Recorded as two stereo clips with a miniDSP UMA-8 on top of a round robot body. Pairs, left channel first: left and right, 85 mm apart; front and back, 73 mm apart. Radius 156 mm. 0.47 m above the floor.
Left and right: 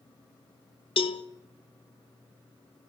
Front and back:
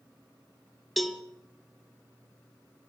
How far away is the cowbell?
About 0.9 m.